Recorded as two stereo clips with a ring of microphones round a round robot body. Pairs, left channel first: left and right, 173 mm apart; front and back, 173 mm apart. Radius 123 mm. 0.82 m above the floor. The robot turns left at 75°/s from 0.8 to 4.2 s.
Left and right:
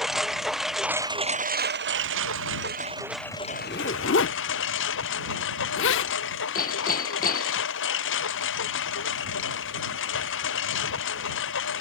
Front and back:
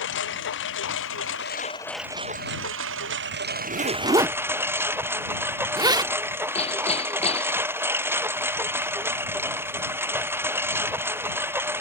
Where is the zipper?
160° left; by 6.2 s 110° left.